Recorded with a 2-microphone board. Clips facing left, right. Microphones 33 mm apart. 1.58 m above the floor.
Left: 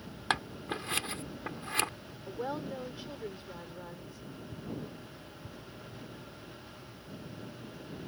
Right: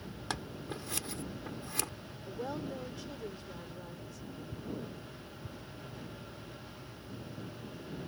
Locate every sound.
0.3 s scissors: 45° left (ahead or behind)
2.3 s a woman speaking: 25° left (ahead or behind)